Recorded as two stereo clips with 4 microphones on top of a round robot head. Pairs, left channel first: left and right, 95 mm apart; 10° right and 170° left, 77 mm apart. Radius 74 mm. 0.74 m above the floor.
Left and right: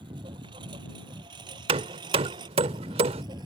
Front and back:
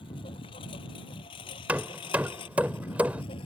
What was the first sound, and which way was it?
A lawn mower, 40° right.